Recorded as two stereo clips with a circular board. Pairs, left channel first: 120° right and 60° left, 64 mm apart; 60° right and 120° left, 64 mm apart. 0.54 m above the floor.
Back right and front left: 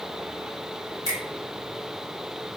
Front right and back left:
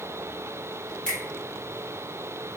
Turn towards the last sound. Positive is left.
turn(degrees=-135)